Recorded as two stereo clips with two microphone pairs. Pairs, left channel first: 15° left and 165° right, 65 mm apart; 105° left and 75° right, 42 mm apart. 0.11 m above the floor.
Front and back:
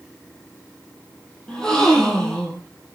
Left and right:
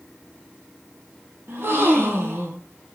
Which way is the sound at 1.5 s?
65° right.